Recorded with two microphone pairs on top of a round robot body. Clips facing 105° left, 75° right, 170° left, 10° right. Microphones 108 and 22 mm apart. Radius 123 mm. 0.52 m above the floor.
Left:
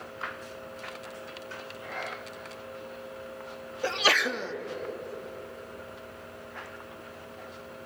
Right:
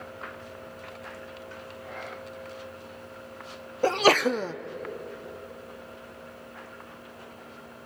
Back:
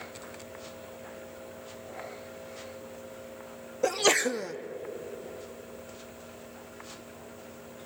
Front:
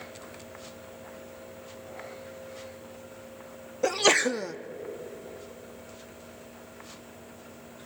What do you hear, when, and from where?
3.8 s a sneeze: 55° right, 0.8 m